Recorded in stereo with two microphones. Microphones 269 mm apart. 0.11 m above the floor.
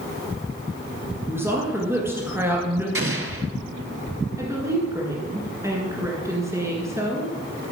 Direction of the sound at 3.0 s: 55° right (ahead or behind).